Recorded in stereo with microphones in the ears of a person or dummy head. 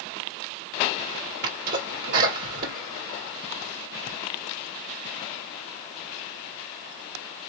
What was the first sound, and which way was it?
A sneeze, 55° right (ahead or behind).